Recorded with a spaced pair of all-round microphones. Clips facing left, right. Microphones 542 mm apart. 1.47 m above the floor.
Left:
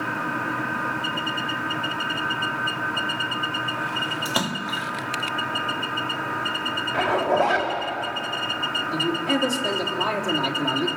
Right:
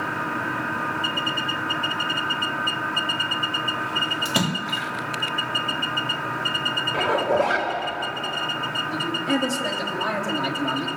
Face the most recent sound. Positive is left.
turn(degrees=-40)  # may be behind; listen again after turning